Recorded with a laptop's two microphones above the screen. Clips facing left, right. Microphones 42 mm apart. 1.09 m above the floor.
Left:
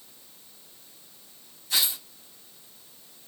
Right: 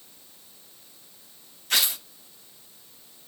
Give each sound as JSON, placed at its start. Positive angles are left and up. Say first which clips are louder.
{"t": 1.7, "sound": "tearing paper", "louder": "right 3 dB", "side_deg": -60, "distance_m": 0.6}